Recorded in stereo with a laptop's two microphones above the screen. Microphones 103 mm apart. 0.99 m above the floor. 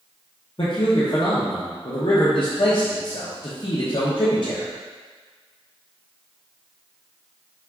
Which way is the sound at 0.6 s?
55° left (ahead or behind).